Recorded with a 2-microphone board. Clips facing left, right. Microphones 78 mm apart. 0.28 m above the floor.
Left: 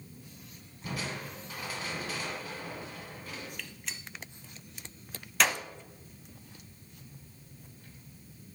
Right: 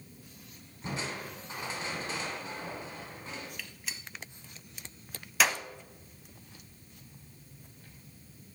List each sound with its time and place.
0.8 s crushing: 30° right (ahead or behind), 1.7 m
3.6 s a gunshot: 5° right (ahead or behind), 0.7 m